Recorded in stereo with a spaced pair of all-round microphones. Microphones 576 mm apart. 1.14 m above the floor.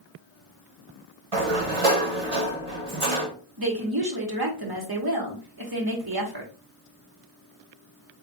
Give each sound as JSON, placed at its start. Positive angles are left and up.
{"t": 1.3, "sound": "a sliding door", "side_deg": -60, "distance_m": 1.2}
{"t": 3.6, "sound": "a woman speaking", "side_deg": -40, "distance_m": 1.3}